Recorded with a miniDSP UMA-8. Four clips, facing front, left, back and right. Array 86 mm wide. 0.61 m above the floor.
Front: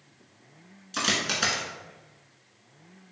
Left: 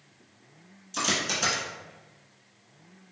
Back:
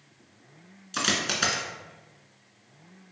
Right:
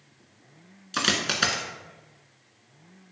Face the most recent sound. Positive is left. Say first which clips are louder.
# right 3 dB, even
turn(degrees=-100)